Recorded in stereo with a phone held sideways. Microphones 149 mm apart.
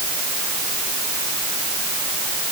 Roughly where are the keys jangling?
No keys jangling in this recording.